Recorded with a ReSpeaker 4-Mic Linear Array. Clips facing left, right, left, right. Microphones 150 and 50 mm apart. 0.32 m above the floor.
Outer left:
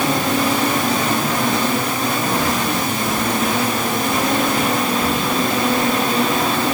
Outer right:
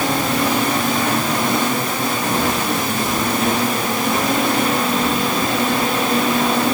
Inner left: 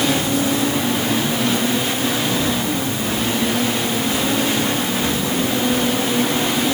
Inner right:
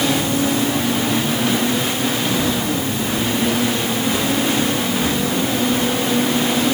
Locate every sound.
Only background noise.